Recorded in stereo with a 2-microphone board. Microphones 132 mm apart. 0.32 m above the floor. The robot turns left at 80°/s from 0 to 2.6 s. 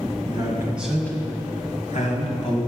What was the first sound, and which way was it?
A man speaking, 130° right.